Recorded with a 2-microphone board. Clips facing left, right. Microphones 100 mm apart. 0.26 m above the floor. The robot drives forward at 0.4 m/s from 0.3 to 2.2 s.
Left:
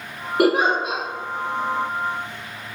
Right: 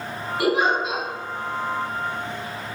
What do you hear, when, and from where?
0.4 s a giggle: 60° left (ahead or behind), 0.9 m; by 1.0 s 75° left (ahead or behind), 0.8 m